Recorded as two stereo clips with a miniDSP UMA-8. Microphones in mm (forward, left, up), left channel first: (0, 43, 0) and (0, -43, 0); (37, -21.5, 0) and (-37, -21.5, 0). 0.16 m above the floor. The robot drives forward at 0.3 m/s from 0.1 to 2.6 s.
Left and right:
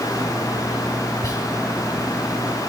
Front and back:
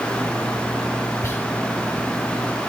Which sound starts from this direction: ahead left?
Whispering, at 1.2 s.